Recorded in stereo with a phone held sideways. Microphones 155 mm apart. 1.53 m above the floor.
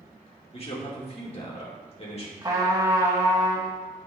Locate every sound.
0.5 s a man speaking: 40° left (ahead or behind), 2.5 m
2.4 s a trumpet: 25° right (ahead or behind), 1.7 m